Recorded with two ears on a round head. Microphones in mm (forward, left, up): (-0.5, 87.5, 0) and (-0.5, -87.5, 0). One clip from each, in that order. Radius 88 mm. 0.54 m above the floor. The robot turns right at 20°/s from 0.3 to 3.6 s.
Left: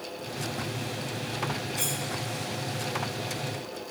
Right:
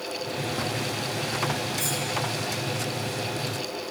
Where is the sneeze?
I don't hear a sneeze.